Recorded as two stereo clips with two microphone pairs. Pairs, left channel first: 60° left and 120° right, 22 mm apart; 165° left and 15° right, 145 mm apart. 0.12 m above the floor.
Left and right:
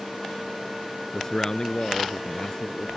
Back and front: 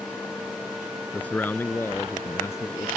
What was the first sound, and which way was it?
A man speaking, 95° left.